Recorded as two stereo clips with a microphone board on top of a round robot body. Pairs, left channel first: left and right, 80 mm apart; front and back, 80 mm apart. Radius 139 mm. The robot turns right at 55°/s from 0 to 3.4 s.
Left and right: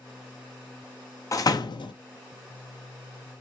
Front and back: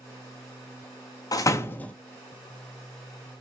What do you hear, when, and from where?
1.3 s a door slam: 40° left, 0.5 m; by 1.9 s 75° left, 0.5 m